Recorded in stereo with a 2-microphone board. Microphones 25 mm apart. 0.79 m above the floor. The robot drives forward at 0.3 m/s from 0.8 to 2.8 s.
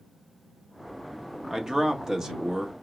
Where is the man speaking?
20° right (ahead or behind), 1.0 m.